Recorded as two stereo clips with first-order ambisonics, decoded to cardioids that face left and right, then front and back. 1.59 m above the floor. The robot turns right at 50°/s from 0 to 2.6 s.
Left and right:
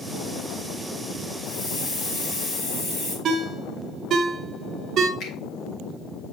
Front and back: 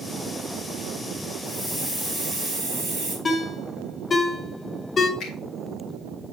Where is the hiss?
60° left, 4.5 m; by 3.1 s 115° left, 4.5 m.